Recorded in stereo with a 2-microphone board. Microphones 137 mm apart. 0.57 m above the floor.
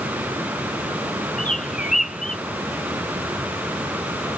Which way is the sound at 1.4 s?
65° left (ahead or behind).